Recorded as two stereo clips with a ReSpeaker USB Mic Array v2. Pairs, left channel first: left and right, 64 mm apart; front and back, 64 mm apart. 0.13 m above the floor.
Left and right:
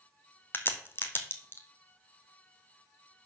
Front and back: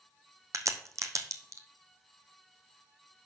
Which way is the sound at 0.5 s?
145° left.